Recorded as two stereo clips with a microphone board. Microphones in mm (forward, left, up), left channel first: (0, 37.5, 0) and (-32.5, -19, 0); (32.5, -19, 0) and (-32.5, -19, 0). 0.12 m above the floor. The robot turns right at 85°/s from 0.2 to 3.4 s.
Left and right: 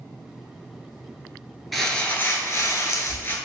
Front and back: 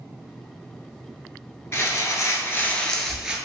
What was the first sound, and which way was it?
Crumpling, 30° right.